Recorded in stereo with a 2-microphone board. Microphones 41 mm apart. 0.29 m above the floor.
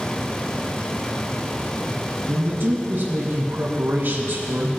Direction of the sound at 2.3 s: 60° right (ahead or behind).